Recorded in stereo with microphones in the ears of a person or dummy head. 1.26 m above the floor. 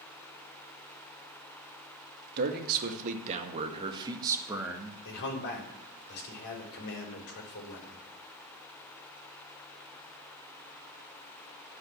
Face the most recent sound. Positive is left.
turn(degrees=65)  # may be behind; listen again after turning